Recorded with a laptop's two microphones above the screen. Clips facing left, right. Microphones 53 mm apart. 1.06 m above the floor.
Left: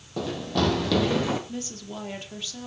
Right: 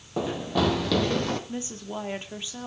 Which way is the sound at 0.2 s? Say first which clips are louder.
Right 1 dB; 20° right (ahead or behind).